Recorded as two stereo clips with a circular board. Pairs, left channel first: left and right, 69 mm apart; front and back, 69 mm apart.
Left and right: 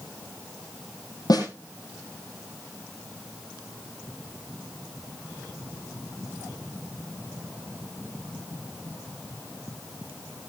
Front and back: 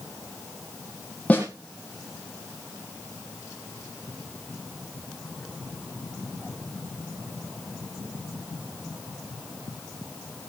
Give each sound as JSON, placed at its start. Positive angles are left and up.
{"t": 1.3, "sound": "a snare drum", "azimuth_deg": 70, "distance_m": 4.5}